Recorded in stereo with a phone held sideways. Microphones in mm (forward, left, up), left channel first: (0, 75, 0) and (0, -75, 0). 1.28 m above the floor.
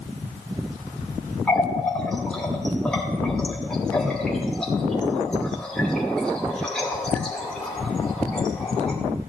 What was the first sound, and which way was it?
A running tap, 5° left (ahead or behind).